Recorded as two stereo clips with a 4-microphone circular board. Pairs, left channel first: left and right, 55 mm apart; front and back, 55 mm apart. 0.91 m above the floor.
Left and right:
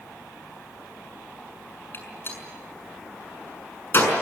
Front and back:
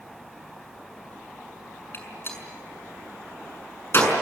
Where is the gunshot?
45° left, 6 m.